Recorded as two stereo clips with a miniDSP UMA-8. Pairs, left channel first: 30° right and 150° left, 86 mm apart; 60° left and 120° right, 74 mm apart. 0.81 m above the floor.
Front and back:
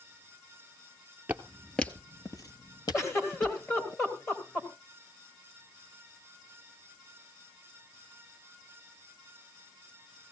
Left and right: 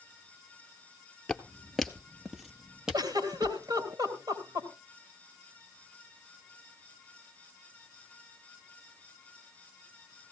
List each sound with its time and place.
1.3 s footsteps: 120° left, 0.8 m; by 3.9 s 40° right, 2 m
2.9 s a giggle: 85° right, 2.5 m